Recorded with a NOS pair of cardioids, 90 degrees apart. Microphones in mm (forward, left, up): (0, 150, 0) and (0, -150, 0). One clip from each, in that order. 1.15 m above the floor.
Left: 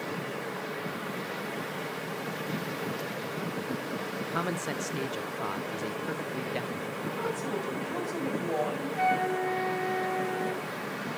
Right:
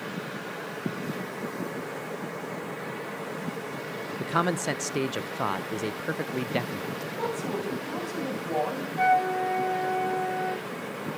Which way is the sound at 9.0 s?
30° left.